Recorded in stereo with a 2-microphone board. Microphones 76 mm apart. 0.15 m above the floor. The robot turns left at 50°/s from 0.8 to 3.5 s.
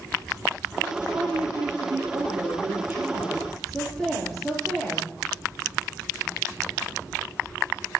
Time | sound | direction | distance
1.1 | a woman speaking | 60° right | 3.5 m